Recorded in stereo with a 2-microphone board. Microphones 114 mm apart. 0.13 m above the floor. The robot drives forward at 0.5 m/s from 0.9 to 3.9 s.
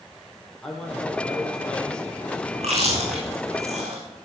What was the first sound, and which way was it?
A man speaking, 5° left (ahead or behind).